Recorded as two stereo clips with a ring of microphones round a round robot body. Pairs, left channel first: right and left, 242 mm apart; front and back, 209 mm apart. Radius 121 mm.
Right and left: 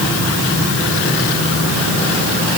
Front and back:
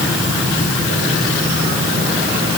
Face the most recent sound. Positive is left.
No sound to turn to.